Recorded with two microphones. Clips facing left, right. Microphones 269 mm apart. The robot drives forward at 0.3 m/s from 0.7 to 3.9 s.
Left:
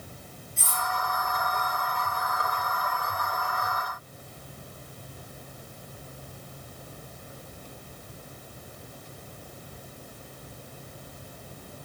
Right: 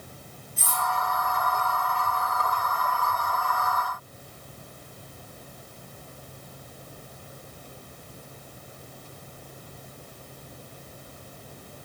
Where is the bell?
No bell in this recording.